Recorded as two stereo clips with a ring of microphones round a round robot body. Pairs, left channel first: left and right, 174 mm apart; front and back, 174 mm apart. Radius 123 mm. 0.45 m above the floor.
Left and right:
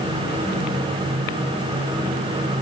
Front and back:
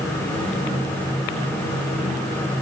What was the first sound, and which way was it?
Only background noise.